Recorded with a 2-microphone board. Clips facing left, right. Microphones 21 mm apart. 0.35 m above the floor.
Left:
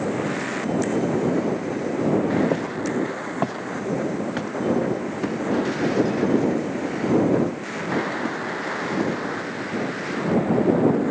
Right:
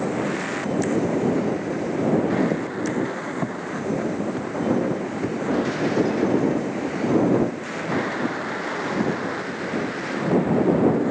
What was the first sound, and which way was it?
Footsteps, 80° left.